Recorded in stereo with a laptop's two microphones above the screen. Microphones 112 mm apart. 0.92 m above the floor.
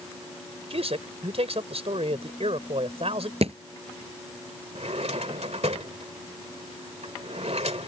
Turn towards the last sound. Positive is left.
turn(degrees=-75)  # may be behind; listen again after turning